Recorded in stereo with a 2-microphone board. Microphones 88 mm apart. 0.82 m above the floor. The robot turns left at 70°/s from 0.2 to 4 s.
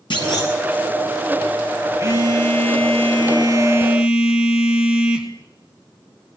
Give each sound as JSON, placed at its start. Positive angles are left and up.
{"t": 0.1, "sound": "a clunk", "side_deg": 65, "distance_m": 9.5}
{"t": 2.0, "sound": "a phone buzzing", "azimuth_deg": -30, "distance_m": 3.5}